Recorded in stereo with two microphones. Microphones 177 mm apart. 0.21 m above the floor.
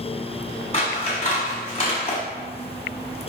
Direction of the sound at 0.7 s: 40° left (ahead or behind).